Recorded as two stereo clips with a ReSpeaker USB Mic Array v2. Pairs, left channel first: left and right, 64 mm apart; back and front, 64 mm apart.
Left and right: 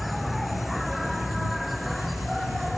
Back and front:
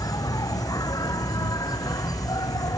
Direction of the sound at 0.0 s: Straight behind.